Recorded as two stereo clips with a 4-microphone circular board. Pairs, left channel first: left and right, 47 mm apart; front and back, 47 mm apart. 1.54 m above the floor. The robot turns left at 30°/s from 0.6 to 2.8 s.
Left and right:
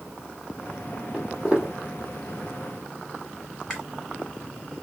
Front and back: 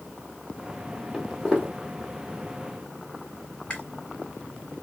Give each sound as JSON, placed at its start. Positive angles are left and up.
{"t": 1.1, "sound": "footsteps", "azimuth_deg": -120, "distance_m": 1.7}
{"t": 3.7, "sound": "chewing", "azimuth_deg": 15, "distance_m": 1.4}